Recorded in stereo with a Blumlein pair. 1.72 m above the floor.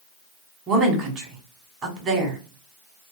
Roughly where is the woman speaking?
Ahead right.